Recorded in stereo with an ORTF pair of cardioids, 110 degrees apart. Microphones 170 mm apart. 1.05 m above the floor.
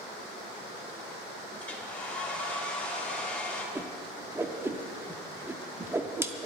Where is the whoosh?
15° right, 1.1 m.